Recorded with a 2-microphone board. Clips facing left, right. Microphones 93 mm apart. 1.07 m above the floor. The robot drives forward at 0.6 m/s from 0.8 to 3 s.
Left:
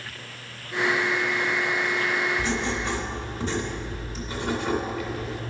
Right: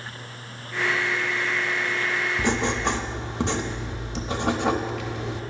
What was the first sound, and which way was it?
Writing, 60° right (ahead or behind).